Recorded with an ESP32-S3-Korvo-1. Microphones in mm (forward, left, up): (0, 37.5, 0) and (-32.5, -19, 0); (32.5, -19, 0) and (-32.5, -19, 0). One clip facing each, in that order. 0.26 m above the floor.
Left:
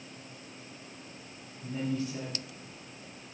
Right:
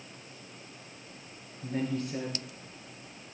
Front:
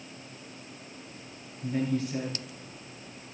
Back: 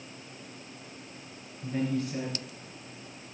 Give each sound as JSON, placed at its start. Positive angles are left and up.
{"t": 1.6, "sound": "a woman speaking", "azimuth_deg": -90, "distance_m": 3.0}